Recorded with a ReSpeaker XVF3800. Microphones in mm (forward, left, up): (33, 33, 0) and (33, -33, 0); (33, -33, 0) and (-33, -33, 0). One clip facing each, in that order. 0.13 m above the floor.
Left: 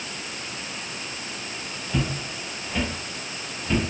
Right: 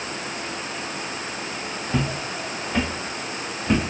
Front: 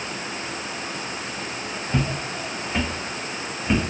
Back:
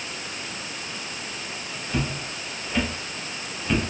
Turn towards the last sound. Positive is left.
turn(degrees=-75)